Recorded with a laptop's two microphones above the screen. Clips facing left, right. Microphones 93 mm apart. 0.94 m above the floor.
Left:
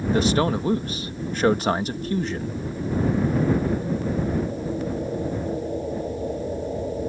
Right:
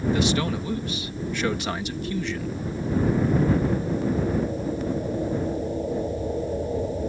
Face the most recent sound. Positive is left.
turn(degrees=40)  # may be behind; listen again after turning